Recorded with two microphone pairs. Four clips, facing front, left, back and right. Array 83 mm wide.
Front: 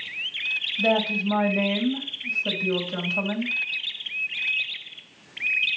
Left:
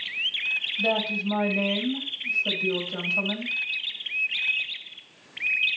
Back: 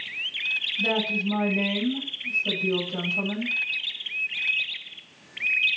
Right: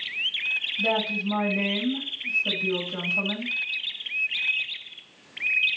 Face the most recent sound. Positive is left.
turn(degrees=30)